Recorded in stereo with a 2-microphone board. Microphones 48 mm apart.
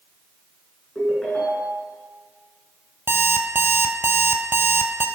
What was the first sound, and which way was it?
A ringtone, 25° left (ahead or behind).